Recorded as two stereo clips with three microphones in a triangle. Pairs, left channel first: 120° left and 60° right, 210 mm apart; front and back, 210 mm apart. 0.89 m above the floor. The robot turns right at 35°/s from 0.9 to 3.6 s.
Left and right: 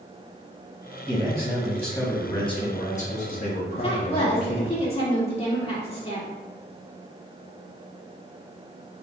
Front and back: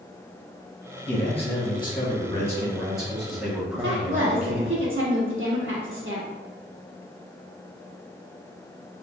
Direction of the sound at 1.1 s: 20° left.